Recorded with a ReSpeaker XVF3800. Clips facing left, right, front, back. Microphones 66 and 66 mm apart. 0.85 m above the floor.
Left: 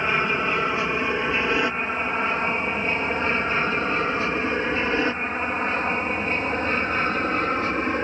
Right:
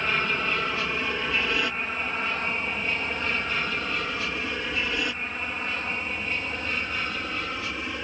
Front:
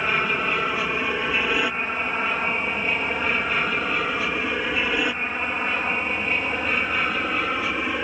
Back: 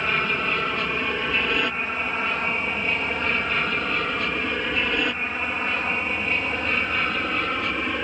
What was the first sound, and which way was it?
An aircraft, 70° left.